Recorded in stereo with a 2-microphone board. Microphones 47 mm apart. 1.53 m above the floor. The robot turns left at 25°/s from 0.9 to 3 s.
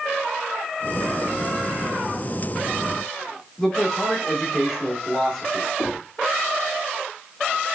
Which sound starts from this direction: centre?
A man speaking, at 3.6 s.